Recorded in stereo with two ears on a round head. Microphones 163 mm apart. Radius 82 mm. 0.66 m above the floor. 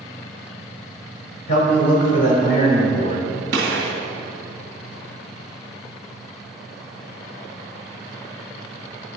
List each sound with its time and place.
1.5 s a man speaking: 45° left (ahead or behind), 2.5 m
3.5 s a gunshot: 65° right (ahead or behind), 2.5 m